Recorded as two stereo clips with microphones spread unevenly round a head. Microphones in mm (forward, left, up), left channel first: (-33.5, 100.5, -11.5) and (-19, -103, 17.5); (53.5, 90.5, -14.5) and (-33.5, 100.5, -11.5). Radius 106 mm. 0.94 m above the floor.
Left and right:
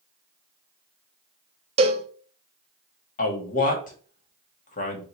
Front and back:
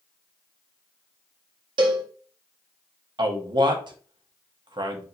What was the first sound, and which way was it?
A cowbell, 145° right.